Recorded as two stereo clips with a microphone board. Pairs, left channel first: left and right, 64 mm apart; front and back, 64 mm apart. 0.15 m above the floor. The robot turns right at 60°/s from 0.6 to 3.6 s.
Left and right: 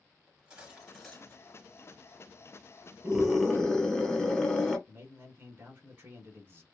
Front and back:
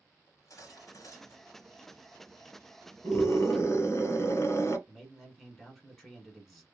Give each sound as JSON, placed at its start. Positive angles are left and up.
{"t": 0.3, "sound": "cutlery clinking", "azimuth_deg": -20, "distance_m": 1.6}
{"t": 3.0, "sound": "a scream", "azimuth_deg": -20, "distance_m": 1.4}
{"t": 4.9, "sound": "a man speaking", "azimuth_deg": -95, "distance_m": 1.2}